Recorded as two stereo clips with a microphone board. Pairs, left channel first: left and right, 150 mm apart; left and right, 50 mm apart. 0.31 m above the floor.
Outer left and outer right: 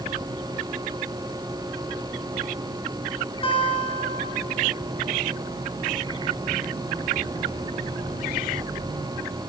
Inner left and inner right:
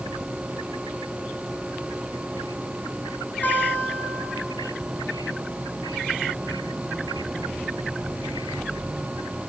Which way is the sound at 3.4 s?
40° left (ahead or behind).